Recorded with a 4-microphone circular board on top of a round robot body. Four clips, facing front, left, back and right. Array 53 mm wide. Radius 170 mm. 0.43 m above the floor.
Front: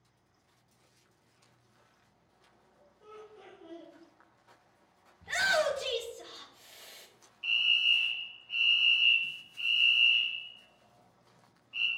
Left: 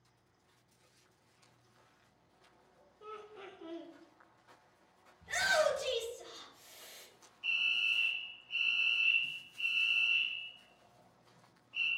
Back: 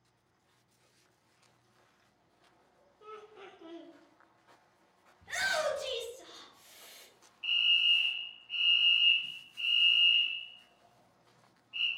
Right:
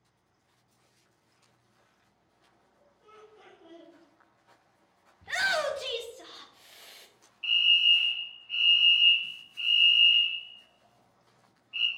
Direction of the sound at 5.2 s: 75° right.